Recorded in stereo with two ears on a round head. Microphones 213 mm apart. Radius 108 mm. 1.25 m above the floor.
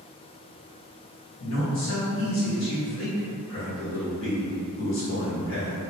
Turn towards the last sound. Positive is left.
turn(degrees=60)  # may be behind; listen again after turning